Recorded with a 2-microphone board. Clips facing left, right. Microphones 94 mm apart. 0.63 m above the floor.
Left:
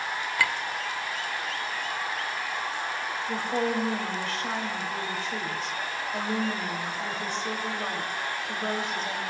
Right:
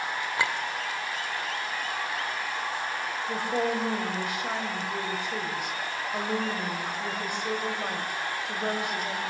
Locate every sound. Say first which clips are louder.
0.4 s a clink: left 1 dB; 25° right (ahead or behind), 1.8 m
3.3 s a woman speaking: even; 15° right (ahead or behind), 3.5 m